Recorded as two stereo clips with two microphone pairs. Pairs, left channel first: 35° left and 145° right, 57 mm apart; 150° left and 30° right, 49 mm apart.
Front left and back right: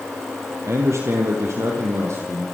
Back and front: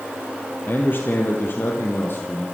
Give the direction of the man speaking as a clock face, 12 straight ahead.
6 o'clock.